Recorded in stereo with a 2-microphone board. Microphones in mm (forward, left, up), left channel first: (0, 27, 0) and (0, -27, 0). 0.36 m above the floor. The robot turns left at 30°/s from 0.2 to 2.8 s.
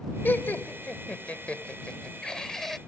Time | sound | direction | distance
0.2 | laughter | 40° left (ahead or behind) | ?